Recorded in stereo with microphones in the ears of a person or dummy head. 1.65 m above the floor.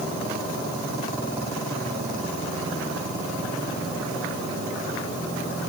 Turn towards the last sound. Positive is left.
No sound to turn to.